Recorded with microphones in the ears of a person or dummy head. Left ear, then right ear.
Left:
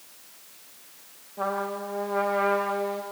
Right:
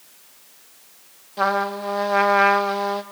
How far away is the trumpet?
About 1.1 m.